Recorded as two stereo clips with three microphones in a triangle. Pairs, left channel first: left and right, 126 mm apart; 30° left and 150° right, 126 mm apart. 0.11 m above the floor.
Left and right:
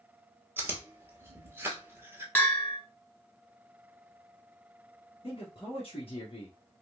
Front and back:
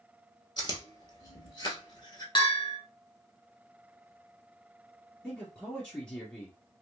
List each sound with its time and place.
0.6 s chewing: 20° right, 1.0 m
2.4 s a bell: 20° left, 1.3 m
5.2 s a man speaking: 105° left, 1.8 m